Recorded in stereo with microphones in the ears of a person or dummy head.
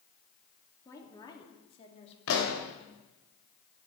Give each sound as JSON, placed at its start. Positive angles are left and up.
{"t": 0.8, "sound": "a woman speaking", "side_deg": 15, "distance_m": 3.0}
{"t": 2.3, "sound": "a pop", "side_deg": 80, "distance_m": 3.0}